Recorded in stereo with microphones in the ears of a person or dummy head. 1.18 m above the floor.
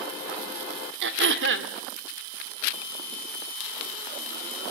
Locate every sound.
1.0 s throat clearing: 70° right (ahead or behind), 1.9 m